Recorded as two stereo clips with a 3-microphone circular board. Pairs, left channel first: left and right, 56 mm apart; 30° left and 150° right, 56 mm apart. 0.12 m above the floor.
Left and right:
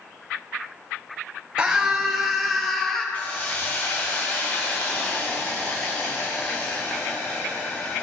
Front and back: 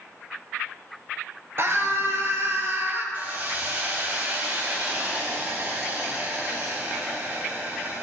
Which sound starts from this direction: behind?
A scream, at 1.6 s.